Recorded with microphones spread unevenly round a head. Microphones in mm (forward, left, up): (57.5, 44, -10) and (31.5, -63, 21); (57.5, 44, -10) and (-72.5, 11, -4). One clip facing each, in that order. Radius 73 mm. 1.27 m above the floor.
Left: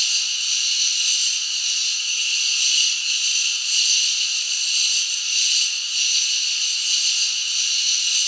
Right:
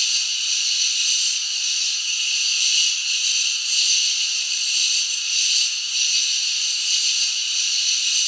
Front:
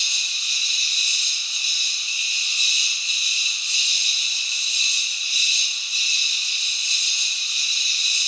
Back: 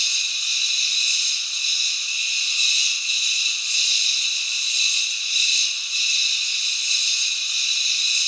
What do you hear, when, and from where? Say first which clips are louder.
0.0 s an insect: even, even; 50° left, 1.8 m